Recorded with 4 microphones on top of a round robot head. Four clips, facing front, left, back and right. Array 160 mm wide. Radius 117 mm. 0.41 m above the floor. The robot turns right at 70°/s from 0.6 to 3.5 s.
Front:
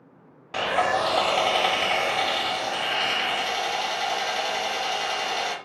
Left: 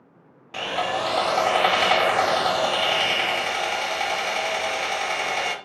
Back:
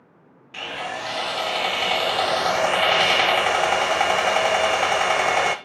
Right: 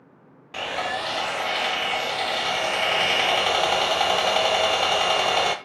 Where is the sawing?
5° left, 1.1 m; by 5.5 s 150° right, 1.1 m.